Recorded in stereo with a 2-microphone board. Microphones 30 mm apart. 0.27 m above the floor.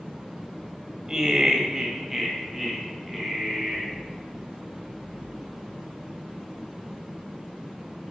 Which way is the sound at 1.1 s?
20° right (ahead or behind).